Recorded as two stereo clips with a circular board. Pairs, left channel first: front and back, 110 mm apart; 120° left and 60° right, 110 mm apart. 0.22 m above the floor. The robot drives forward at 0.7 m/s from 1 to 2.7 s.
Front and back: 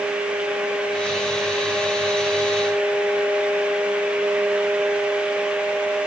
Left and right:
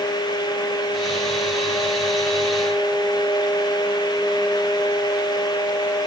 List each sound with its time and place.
Only background noise.